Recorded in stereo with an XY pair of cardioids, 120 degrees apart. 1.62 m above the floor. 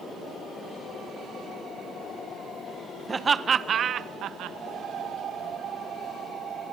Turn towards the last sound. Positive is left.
turn(degrees=-75)